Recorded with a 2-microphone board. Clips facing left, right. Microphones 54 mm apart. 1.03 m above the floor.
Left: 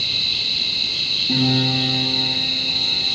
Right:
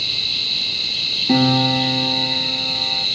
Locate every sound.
1.3 s a piano: 70° right (ahead or behind), 3.5 m